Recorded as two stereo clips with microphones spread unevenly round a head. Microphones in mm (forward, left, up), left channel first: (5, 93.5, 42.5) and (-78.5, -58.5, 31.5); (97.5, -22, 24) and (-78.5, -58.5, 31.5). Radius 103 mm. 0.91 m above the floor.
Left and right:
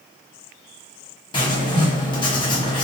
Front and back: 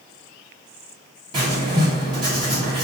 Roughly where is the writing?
Behind left.